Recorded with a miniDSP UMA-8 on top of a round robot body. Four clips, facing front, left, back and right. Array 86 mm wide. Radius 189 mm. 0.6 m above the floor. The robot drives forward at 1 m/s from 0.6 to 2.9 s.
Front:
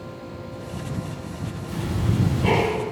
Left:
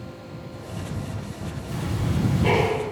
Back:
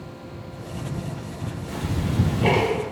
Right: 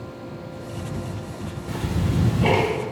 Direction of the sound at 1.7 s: 105° right.